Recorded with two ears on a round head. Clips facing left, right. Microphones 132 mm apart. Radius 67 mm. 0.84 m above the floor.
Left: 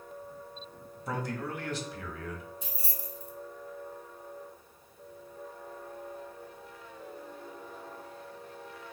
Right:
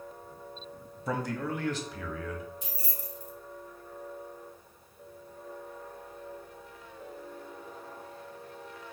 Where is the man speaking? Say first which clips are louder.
Right 3 dB; 65° right (ahead or behind), 1.0 m.